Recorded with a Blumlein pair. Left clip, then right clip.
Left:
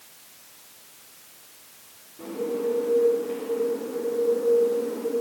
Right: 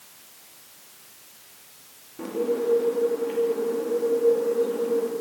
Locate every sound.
2.2 s a bird: 65° right, 2 m